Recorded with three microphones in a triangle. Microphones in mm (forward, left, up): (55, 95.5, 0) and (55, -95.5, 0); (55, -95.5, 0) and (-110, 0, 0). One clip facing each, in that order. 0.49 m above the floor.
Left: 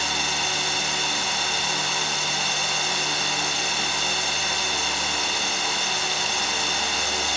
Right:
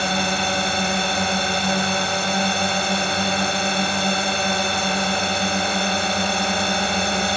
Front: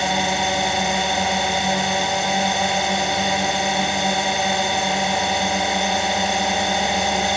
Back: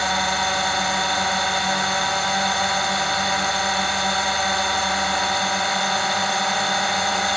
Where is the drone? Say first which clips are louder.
Right 8 dB, front 3 dB; 100° right.